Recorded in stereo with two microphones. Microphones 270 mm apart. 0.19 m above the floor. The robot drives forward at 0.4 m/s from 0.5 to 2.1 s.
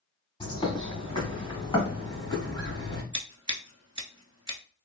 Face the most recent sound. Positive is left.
turn(degrees=-70)  # may be behind; listen again after turning